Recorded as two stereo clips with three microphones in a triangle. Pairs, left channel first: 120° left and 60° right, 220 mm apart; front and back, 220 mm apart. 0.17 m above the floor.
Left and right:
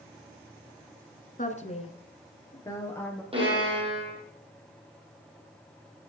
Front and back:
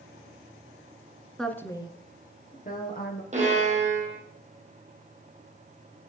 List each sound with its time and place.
1.4 s a woman speaking: 85° left, 1.7 m; by 3.2 s 40° left, 3.5 m
3.3 s a violin: 125° right, 5.5 m